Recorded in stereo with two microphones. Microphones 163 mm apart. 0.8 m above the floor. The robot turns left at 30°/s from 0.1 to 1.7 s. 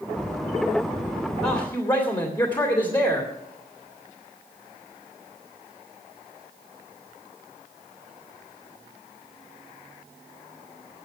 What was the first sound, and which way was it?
A man speaking, 20° left (ahead or behind).